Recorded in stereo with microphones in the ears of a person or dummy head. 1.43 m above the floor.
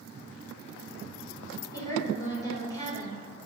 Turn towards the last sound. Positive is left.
turn(degrees=25)  # may be behind; listen again after turning